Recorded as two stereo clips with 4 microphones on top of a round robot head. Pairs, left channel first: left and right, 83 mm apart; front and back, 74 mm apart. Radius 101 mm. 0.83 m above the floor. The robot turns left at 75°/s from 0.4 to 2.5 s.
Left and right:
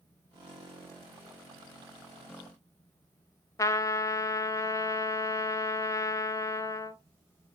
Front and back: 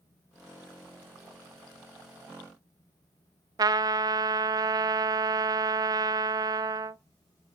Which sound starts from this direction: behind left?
A trumpet, at 3.6 s.